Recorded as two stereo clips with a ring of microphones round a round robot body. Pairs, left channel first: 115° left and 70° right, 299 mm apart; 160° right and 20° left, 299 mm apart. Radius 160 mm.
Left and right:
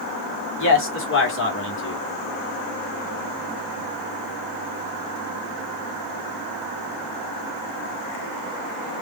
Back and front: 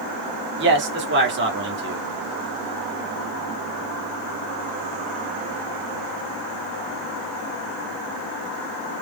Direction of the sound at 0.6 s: 70° left.